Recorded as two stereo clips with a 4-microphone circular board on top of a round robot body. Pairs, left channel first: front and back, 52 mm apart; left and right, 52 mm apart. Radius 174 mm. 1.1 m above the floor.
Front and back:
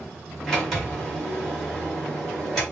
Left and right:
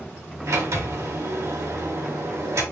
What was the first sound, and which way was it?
A sliding door, 85° right.